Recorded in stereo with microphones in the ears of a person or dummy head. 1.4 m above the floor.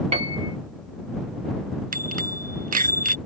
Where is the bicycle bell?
45° right (ahead or behind).